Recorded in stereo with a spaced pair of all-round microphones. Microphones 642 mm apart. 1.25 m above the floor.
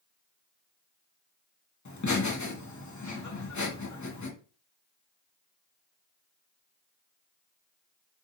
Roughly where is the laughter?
Left.